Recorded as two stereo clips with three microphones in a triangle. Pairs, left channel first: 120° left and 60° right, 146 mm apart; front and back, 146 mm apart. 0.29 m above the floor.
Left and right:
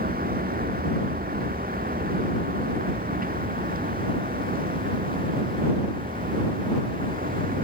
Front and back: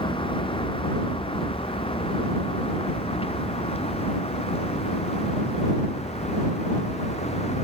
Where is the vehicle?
55° right; by 7.6 s 45° right.